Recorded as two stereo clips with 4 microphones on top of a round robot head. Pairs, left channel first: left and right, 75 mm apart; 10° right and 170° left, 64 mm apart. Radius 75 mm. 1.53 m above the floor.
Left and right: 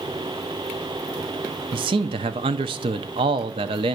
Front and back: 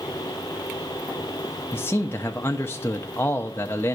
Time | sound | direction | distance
1.7 | a man speaking | 75° right | 0.7 m